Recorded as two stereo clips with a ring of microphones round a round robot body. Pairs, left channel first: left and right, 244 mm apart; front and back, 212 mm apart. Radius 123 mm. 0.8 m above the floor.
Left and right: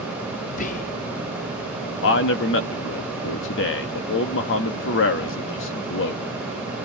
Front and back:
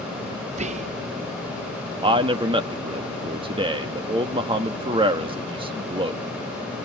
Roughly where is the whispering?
Behind left.